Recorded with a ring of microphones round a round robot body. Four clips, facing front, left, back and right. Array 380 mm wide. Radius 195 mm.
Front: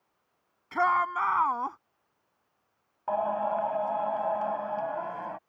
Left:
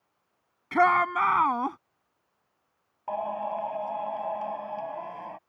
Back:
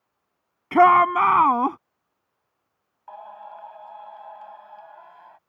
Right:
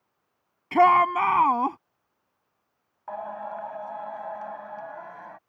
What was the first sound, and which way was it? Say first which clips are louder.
A shout: right 4 dB, back 11 dB; 170° right.